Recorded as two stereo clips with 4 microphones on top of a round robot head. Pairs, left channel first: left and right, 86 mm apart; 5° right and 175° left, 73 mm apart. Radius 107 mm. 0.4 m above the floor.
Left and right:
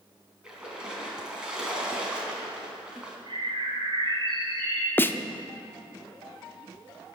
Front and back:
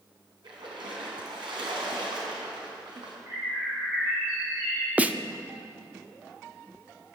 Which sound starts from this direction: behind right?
A bird, at 3.3 s.